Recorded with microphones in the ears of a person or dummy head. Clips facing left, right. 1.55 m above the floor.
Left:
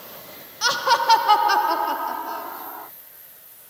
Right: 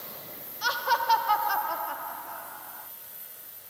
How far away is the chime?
I don't hear a chime.